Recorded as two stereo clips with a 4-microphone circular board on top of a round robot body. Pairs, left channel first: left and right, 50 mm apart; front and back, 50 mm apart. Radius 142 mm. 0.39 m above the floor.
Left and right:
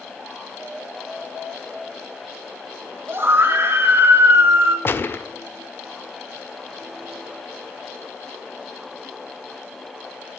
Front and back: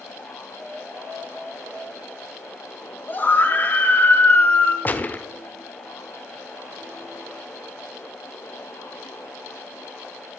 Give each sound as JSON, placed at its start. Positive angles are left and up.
{"t": 3.1, "sound": "a scream", "azimuth_deg": -50, "distance_m": 2.5}
{"t": 4.8, "sound": "a gunshot", "azimuth_deg": 50, "distance_m": 1.1}